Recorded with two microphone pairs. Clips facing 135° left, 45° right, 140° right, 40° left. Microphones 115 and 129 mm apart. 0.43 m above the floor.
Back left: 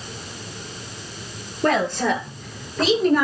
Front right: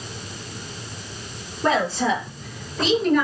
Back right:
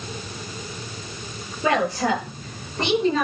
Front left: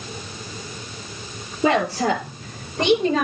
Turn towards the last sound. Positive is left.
turn(degrees=80)